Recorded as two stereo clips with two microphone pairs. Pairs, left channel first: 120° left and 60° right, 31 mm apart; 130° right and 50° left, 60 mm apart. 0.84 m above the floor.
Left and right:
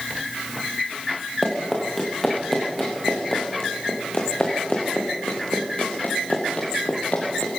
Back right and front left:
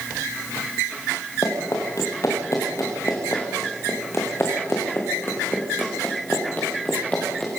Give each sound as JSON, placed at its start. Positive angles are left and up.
{"t": 1.4, "sound": "running footsteps", "azimuth_deg": -155, "distance_m": 5.5}